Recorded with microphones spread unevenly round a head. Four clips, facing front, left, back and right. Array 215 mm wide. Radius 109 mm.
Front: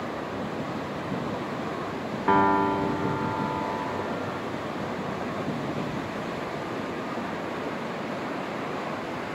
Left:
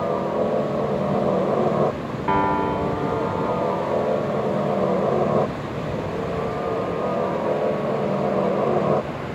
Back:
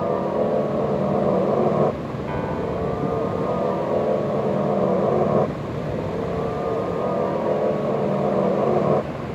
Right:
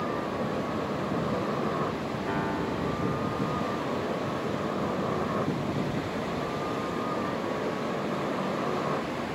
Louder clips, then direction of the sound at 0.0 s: Left 8 dB, back 11 dB; 145° left.